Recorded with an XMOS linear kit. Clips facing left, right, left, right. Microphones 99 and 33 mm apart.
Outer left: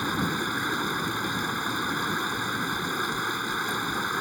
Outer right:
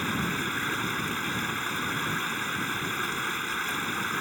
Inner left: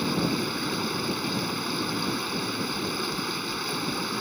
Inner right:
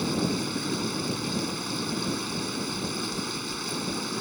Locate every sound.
0.0 s running water: 15° left (ahead or behind)
2.3 s knocking: 60° left (ahead or behind)